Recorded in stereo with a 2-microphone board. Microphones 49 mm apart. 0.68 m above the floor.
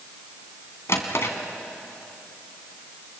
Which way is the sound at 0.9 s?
65° left (ahead or behind).